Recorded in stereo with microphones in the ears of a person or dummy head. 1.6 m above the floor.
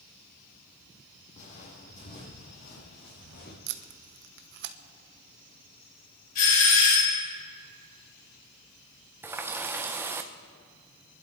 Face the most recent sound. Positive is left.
turn(degrees=-10)  # may be behind; listen again after turning